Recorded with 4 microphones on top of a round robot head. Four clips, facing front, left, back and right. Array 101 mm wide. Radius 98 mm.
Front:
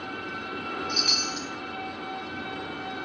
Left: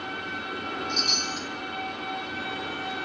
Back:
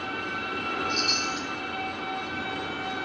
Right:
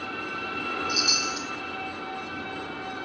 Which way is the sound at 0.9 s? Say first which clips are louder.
Right 1 dB, back 2 dB; 20° right.